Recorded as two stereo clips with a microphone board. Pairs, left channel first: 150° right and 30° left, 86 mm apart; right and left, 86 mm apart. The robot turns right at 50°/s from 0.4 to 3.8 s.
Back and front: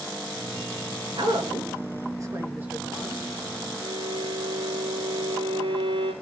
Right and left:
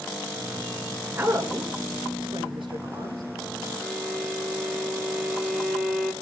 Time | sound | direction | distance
1.1 | a woman speaking | 20° left | 3 m
3.8 | a violin | 15° left | 5 m